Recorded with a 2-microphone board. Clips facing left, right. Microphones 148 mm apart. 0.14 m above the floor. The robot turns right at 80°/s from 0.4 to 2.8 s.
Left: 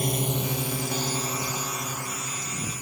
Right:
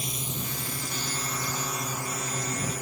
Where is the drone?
60° left (ahead or behind); by 2.8 s 75° right (ahead or behind).